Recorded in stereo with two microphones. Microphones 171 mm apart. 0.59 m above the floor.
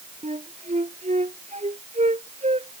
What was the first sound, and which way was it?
A flute, 40° right (ahead or behind).